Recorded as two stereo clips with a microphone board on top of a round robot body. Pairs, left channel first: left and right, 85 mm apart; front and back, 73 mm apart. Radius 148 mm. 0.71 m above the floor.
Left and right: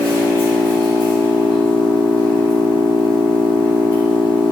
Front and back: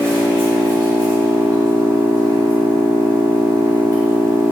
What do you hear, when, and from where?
0.0 s an engine running: 60° left, 1.6 m